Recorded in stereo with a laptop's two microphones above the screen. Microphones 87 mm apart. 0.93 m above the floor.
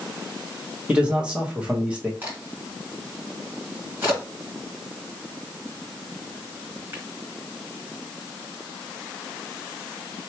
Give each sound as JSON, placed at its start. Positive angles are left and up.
{"t": 0.9, "sound": "a man speaking", "side_deg": -15, "distance_m": 1.2}
{"t": 2.2, "sound": "a crack", "side_deg": -25, "distance_m": 1.8}